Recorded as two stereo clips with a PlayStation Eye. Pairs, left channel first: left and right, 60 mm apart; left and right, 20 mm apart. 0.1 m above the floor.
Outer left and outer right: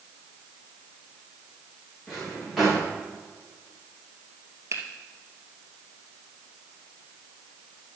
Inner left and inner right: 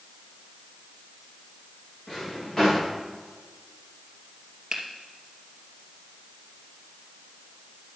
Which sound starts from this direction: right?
A finger snap, at 4.7 s.